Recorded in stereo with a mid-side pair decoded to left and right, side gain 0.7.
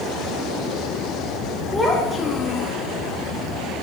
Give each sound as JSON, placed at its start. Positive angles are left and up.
{"t": 1.7, "sound": "a child speaking", "azimuth_deg": 15, "distance_m": 1.4}